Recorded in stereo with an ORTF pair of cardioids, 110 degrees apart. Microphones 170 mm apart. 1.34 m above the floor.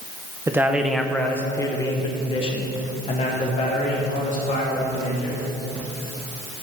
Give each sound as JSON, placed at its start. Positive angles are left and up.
{"t": 0.5, "sound": "a man speaking", "azimuth_deg": -15, "distance_m": 1.0}